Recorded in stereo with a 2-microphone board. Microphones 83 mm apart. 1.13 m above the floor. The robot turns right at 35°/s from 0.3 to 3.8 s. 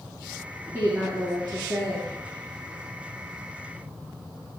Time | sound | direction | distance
0.7 | a woman speaking | 150° right | 1.5 m